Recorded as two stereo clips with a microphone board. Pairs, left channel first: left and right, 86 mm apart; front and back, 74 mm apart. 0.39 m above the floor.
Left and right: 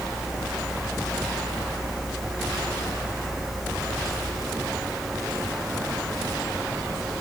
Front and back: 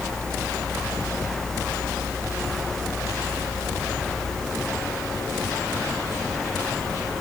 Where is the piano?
I don't hear a piano.